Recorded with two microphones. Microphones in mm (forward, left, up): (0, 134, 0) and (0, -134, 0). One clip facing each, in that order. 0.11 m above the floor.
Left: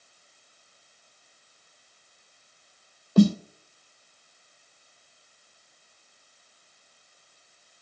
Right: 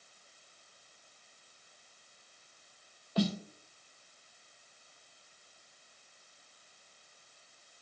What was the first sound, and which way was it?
A snare drum, 55° left (ahead or behind).